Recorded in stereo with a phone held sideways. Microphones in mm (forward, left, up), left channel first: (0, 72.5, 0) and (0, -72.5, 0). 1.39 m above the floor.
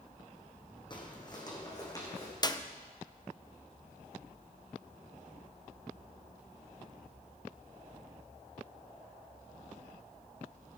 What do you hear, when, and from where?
0.9 s footsteps: 30° left (ahead or behind), 2.5 m; by 2.3 s 25° left (ahead or behind), 4 m
2.4 s a clap: 30° left (ahead or behind), 0.7 m